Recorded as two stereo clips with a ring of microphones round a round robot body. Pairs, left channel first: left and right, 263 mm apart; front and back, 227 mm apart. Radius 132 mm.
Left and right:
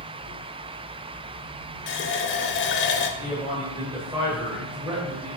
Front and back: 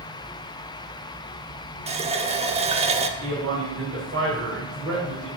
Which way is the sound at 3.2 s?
160° right.